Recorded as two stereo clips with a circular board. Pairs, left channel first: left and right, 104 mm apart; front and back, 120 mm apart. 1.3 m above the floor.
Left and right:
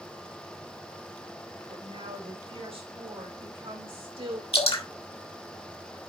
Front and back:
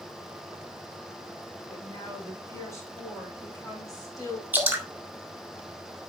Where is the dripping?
105° left, 1.9 m.